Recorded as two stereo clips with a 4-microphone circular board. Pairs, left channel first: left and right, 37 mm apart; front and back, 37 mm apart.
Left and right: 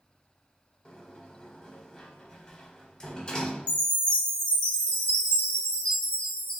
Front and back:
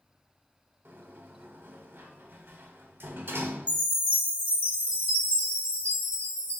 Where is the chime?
45° left, 1.7 m.